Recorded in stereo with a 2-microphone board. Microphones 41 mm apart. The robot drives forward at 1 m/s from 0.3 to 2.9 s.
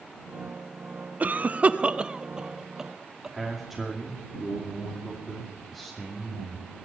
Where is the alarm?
I don't hear an alarm.